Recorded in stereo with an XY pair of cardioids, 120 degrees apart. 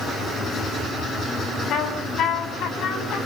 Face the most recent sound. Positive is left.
turn(degrees=65)